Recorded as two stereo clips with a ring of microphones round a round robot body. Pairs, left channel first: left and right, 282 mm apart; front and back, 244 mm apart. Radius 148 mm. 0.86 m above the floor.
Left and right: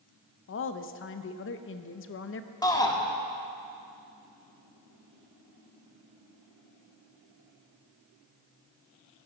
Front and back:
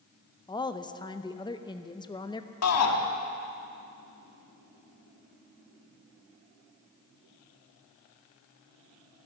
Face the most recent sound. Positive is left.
turn(degrees=15)